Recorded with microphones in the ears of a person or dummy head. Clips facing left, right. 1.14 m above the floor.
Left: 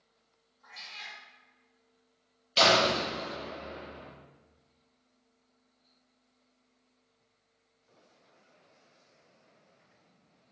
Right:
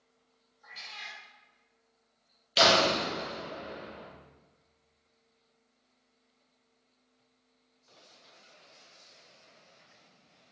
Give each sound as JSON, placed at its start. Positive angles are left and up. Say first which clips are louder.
{"t": 0.6, "sound": "a cat meowing", "louder": "right 1 dB", "side_deg": -15, "distance_m": 1.4}
{"t": 2.6, "sound": "a door slam", "louder": "even", "side_deg": -10, "distance_m": 0.5}